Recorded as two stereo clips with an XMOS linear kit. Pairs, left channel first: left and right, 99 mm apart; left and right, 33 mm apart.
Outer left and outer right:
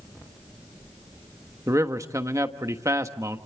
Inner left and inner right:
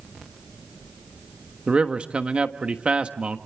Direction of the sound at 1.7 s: 35° right (ahead or behind).